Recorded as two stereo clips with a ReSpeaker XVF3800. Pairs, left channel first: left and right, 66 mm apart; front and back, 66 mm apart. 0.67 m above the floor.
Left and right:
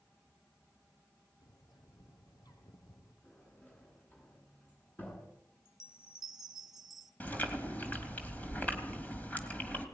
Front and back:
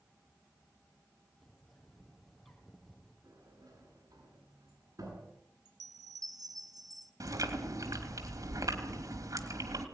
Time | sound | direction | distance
1.4 | a bird | 85° left | 4.5 m
3.2 | a sliding door | 155° left | 9.5 m
5.7 | a chime | 175° right | 3 m
7.2 | chewing | 155° left | 3 m